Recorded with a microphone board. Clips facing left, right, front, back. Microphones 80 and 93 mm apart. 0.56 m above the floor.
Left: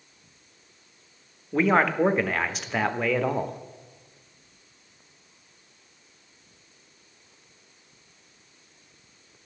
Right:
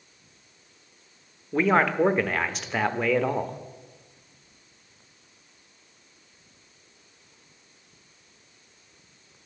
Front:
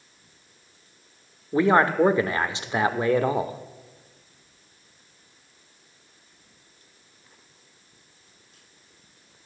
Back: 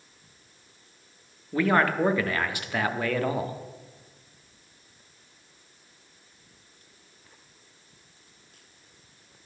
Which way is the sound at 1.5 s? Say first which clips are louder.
Even, front 4 dB; straight ahead.